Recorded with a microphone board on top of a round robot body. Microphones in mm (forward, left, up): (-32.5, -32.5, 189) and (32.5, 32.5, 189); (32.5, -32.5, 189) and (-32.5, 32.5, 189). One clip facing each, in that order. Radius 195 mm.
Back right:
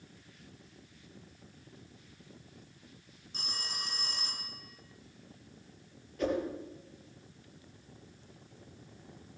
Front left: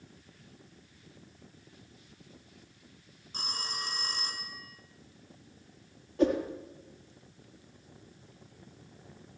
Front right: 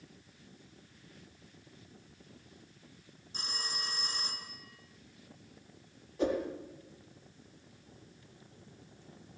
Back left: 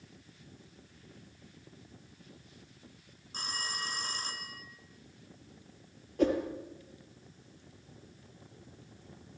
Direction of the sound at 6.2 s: 100° left.